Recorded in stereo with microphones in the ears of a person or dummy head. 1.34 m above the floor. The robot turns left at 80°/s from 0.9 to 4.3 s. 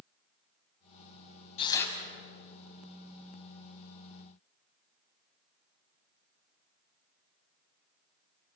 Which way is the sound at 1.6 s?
30° left (ahead or behind).